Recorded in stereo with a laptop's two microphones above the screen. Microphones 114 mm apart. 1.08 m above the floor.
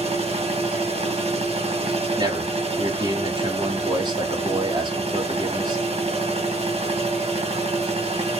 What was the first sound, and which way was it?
A machine running, 70° right (ahead or behind).